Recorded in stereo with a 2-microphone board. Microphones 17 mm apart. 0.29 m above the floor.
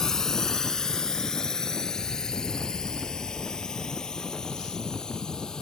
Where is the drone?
25° left (ahead or behind); by 5.6 s 35° left (ahead or behind).